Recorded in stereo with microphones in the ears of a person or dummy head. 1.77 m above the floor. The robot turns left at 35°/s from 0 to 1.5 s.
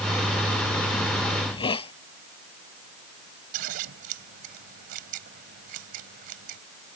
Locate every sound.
1.4 s a hiss: 20° left (ahead or behind); by 1.9 s 25° left (ahead or behind)
3.5 s scissors: 55° right (ahead or behind)